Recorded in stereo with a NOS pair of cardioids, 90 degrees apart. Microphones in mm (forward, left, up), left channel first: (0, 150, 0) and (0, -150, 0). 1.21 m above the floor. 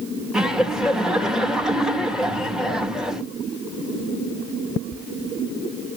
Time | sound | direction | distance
0.3 | laughter | straight ahead | 2.5 m